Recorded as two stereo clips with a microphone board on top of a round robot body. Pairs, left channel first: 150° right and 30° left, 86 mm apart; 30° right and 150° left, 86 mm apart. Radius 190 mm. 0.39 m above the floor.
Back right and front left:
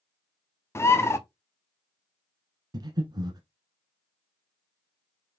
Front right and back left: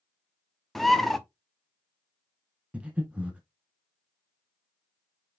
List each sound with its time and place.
0.8 s a bird: 115° right, 1.1 m
2.7 s breathing: 75° left, 1.0 m